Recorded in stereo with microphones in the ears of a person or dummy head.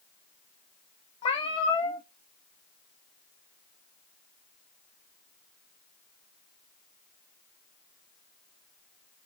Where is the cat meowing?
25° left (ahead or behind), 1.0 m.